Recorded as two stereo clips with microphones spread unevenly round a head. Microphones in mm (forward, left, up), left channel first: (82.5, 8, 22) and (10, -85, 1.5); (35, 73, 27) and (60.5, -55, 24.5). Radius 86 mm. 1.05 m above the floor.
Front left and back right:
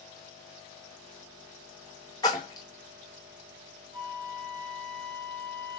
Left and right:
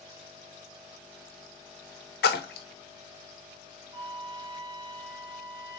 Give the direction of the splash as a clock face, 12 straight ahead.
8 o'clock.